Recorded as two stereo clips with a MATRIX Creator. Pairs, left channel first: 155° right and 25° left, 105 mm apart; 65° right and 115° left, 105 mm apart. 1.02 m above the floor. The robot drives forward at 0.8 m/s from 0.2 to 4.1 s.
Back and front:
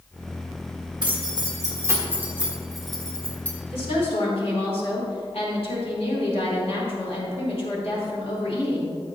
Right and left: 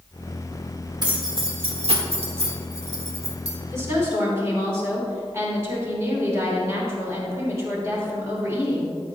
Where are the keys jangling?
65° left, 1.8 m; by 3.5 s 125° left, 2 m.